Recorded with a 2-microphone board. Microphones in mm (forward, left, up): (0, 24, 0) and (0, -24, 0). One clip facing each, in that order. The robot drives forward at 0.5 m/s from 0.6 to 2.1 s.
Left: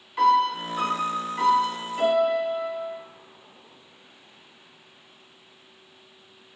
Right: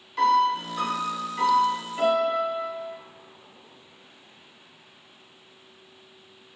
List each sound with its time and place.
0.2 s a piano: 10° left (ahead or behind), 0.6 m; by 3.0 s 5° left (ahead or behind), 1.3 m